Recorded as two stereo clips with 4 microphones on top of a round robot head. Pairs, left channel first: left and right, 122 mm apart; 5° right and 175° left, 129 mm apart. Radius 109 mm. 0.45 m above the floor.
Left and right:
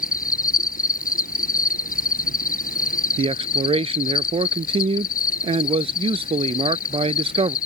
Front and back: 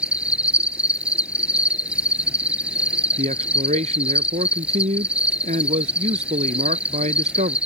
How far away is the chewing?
No chewing in this recording.